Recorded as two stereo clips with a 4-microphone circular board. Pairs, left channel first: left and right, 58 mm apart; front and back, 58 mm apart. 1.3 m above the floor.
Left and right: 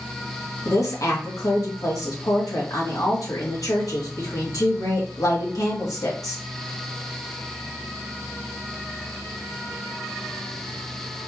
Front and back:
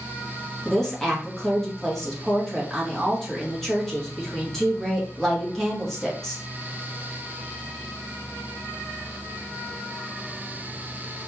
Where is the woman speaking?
80° left, 1.7 m.